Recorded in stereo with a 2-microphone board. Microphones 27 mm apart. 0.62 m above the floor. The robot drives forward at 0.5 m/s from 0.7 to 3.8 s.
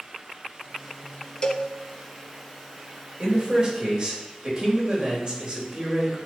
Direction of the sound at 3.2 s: 35° right (ahead or behind).